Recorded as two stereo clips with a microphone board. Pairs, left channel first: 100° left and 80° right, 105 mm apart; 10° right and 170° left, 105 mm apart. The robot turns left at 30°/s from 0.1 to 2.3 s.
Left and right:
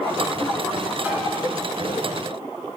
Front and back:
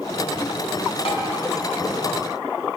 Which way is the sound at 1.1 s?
10° right.